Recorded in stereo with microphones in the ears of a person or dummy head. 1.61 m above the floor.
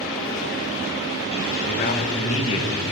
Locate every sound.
1.7 s a man speaking: 45° left (ahead or behind), 1.8 m; by 2.8 s 20° left (ahead or behind), 2 m